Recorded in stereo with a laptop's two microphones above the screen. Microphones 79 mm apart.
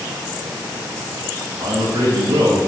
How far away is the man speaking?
About 5 m.